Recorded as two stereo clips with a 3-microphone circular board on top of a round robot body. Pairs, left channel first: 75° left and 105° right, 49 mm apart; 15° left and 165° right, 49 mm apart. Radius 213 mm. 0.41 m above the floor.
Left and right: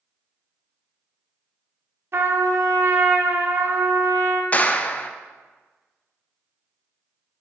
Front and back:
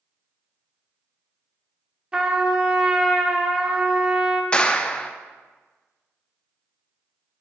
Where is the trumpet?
95° right, 0.7 m.